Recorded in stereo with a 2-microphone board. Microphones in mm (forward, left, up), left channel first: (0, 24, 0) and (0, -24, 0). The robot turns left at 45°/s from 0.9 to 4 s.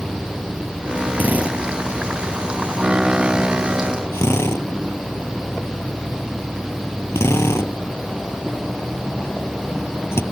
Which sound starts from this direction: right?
A drill, at 1.2 s.